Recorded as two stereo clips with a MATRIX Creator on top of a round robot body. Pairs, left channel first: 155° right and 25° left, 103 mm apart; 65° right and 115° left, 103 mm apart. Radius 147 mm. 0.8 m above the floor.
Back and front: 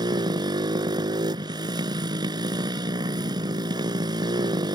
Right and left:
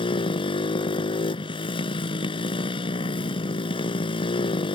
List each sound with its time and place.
0.0 s a motorcycle: 30° right